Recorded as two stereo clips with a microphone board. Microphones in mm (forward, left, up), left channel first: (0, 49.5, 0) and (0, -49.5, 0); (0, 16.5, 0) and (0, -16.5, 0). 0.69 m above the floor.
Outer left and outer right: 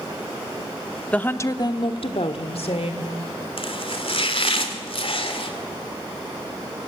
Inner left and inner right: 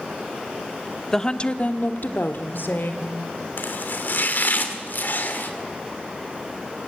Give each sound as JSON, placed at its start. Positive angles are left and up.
{"t": 1.1, "sound": "a woman speaking", "side_deg": 10, "distance_m": 1.2}
{"t": 3.6, "sound": "chopping", "side_deg": 65, "distance_m": 2.5}